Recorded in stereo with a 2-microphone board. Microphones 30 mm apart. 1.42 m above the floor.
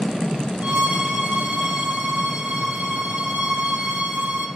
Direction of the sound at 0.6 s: 60° right (ahead or behind).